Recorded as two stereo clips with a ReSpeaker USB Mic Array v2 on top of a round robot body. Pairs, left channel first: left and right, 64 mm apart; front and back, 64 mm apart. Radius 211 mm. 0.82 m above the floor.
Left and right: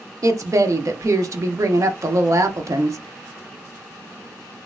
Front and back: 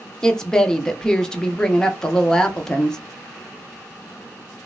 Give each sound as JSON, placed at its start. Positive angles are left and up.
{"t": 0.2, "sound": "a woman speaking", "azimuth_deg": -75, "distance_m": 1.1}